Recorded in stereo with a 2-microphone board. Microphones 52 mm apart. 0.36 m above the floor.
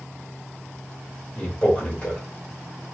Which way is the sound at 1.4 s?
30° left (ahead or behind).